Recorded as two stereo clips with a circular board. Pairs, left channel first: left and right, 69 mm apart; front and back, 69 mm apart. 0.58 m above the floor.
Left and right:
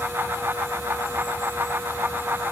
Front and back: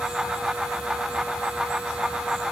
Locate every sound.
Only background noise.